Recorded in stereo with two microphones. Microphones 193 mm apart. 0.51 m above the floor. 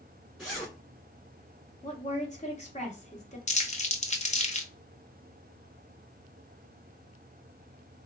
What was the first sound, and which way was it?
A zipper, centre (ahead or behind).